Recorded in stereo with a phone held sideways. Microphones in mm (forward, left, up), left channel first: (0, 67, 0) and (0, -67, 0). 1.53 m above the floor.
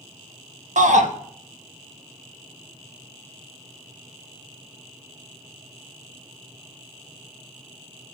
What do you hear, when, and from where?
0.8 s a shout: 65° right (ahead or behind), 1.7 m